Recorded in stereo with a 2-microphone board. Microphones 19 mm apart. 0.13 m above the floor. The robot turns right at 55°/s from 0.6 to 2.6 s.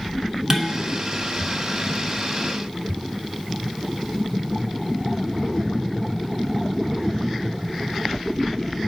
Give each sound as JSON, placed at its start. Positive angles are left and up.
{"t": 0.5, "sound": "dishes clattering", "side_deg": -30, "distance_m": 0.8}